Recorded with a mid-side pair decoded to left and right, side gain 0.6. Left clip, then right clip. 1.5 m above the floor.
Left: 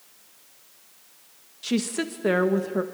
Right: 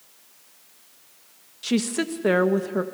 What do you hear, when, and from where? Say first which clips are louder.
1.6 s a woman speaking: right 2 dB; 10° right, 1.8 m